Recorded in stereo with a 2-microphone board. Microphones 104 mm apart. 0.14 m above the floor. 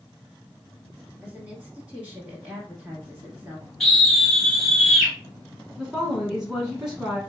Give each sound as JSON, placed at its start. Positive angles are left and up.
{"t": 1.2, "sound": "a woman speaking", "side_deg": -10, "distance_m": 1.6}
{"t": 3.8, "sound": "a scream", "side_deg": 5, "distance_m": 2.0}
{"t": 5.8, "sound": "a woman speaking", "side_deg": -5, "distance_m": 1.8}